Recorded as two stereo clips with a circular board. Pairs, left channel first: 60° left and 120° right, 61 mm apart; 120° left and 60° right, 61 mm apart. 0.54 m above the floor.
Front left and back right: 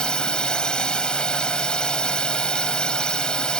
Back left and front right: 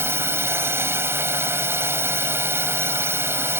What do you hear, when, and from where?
0.0 s a drone: 15° right